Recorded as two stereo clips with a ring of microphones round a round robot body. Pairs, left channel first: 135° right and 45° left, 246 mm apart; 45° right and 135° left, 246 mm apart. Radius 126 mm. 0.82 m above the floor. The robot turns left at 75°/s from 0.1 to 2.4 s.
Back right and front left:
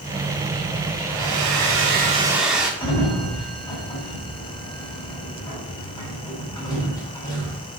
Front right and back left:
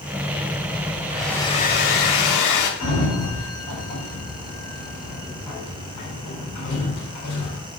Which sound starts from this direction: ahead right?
A sliding door, at 2.8 s.